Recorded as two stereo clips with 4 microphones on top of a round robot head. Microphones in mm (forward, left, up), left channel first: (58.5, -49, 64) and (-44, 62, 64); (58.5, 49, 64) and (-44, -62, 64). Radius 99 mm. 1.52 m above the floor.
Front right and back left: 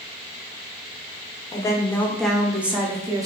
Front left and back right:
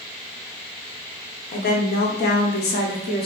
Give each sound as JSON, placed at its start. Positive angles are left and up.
{"t": 1.5, "sound": "a woman speaking", "azimuth_deg": 20, "distance_m": 1.1}